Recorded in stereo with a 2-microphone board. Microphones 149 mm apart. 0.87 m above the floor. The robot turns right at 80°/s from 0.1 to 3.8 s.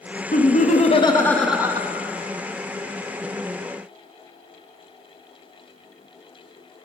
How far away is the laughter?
About 0.8 m.